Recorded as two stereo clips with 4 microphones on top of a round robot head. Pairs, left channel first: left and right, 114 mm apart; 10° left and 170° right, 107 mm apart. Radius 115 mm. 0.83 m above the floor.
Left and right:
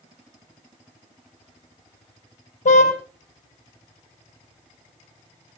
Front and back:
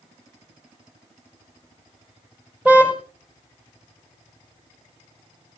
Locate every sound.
2.6 s a car horn: 110° left, 3.5 m